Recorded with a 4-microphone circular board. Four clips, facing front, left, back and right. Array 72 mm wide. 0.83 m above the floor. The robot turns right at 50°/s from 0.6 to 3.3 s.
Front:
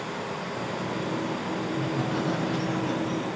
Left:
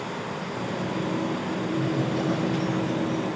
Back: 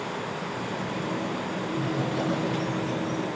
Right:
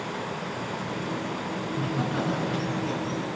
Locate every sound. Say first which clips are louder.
1.7 s laughter: left 3 dB, back 1 dB; 90° right, 10 m; by 3.3 s 10° right, 10 m